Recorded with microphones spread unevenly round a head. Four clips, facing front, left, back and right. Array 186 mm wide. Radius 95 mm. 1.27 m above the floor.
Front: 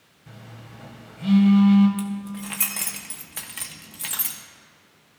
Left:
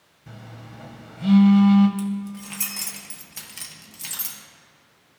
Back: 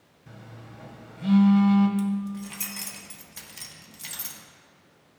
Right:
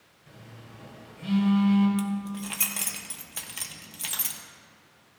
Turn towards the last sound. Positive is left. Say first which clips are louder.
# left 2 dB, back 2 dB
turn(degrees=-20)